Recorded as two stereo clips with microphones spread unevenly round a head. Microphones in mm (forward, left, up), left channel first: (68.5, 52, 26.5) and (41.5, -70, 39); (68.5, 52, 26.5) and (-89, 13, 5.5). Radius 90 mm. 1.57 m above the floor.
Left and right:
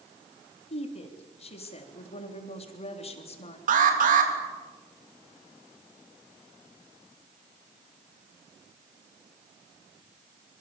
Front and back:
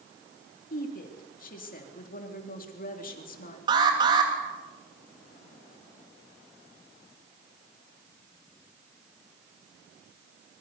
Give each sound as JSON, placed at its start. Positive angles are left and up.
{"t": 0.7, "sound": "a woman speaking", "azimuth_deg": 45, "distance_m": 3.5}
{"t": 3.7, "sound": "an alarm", "azimuth_deg": -100, "distance_m": 3.0}